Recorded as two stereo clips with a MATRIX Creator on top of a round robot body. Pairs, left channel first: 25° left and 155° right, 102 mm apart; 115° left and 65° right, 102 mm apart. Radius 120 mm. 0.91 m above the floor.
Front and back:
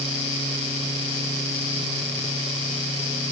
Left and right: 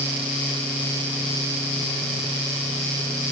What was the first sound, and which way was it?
Only background noise.